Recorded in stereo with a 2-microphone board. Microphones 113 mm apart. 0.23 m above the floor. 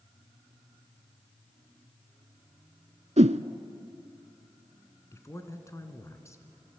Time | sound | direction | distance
3.2 | a whoosh | 80° right | 0.7 m
5.1 | a man speaking | 25° left (ahead or behind) | 2.5 m